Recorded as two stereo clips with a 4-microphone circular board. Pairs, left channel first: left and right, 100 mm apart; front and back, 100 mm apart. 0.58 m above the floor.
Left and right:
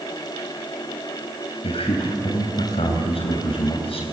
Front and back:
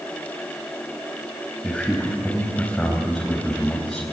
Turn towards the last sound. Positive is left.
turn(degrees=85)